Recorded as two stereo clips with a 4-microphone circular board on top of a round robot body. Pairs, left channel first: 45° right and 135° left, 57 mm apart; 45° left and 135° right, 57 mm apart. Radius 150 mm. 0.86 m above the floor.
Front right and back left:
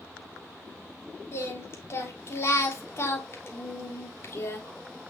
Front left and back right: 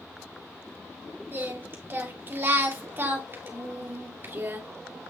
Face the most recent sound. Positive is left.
turn(degrees=-80)